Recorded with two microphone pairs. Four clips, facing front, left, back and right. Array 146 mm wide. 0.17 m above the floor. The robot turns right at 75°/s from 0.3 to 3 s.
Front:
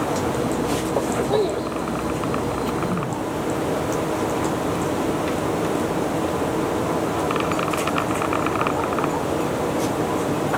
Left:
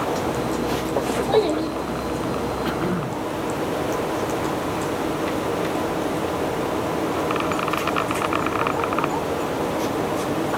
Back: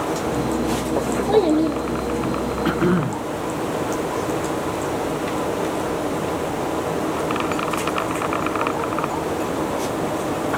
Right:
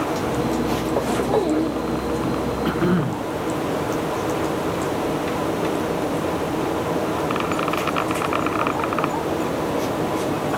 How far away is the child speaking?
About 2.5 m.